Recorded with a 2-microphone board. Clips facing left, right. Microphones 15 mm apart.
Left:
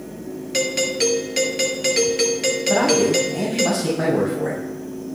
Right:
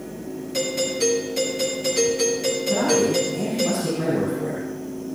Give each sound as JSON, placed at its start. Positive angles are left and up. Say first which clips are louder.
{"t": 0.5, "sound": "a doorbell", "louder": "left 3 dB", "side_deg": 40, "distance_m": 2.5}
{"t": 2.7, "sound": "a man speaking", "louder": "left 3 dB", "side_deg": 75, "distance_m": 6.5}